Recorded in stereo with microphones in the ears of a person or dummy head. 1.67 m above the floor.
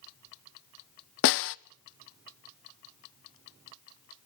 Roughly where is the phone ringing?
No phone ringing in this recording.